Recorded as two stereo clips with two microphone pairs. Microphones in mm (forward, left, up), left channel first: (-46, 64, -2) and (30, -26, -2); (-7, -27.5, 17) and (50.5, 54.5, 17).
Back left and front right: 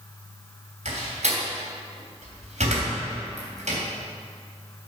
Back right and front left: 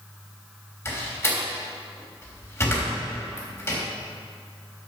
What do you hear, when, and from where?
0.8 s a door slam: 60° right, 3 m